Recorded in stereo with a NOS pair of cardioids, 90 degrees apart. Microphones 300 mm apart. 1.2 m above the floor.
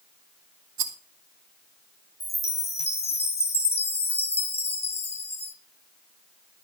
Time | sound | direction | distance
0.8 | a rattle | 65° right | 2.5 m
2.2 | a chime | 20° left | 3 m